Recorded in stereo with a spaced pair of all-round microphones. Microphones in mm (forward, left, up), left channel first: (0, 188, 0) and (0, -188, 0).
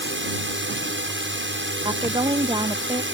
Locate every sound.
0.0 s a drone: 30° right (ahead or behind)
1.9 s a woman speaking: 15° right (ahead or behind)